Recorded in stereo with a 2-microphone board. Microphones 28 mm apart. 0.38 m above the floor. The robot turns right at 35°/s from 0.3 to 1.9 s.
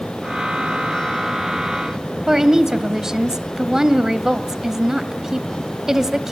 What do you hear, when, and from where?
2.3 s a woman speaking: 20° right (ahead or behind), 2 m